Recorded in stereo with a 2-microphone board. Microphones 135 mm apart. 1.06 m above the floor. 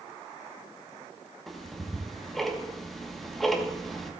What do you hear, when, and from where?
1.5 s ticking: centre (ahead or behind), 1.2 m